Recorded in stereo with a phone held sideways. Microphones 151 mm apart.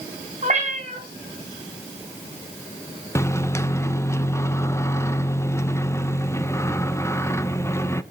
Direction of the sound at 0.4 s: 50° right (ahead or behind).